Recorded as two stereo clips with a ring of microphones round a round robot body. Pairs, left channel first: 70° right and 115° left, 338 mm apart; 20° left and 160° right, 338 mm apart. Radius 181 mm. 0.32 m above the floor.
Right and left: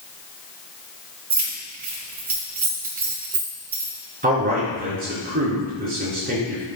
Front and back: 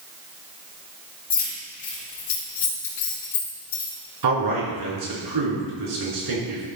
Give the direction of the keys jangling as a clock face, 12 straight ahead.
10 o'clock.